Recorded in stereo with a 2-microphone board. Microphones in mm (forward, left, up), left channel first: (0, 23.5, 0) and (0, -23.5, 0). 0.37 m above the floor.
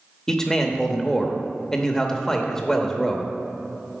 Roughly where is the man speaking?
Centre.